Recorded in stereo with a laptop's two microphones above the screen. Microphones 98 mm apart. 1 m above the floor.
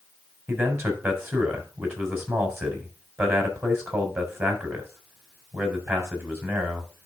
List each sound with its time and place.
0.5 s a man speaking: 25° right (ahead or behind), 3.5 m